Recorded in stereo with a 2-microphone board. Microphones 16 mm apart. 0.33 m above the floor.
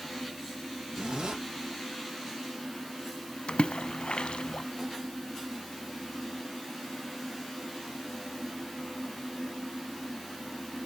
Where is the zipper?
75° right (ahead or behind), 5.5 m.